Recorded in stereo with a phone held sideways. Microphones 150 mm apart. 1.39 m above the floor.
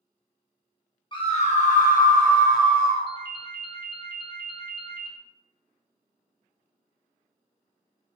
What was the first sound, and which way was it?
A scream, 35° left (ahead or behind).